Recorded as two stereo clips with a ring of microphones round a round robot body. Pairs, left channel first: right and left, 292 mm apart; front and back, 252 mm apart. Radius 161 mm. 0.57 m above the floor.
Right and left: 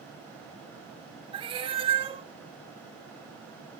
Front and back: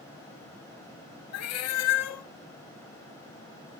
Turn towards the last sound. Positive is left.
turn(degrees=20)